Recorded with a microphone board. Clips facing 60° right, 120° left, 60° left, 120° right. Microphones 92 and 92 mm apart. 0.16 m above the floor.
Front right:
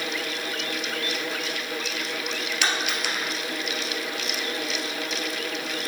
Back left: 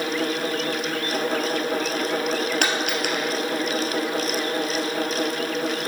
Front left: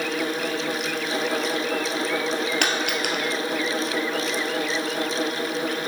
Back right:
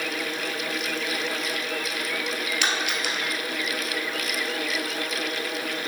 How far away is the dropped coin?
About 1.4 m.